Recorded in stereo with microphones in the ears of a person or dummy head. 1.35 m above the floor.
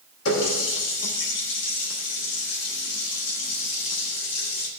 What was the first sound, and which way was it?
A running tap, 80° left.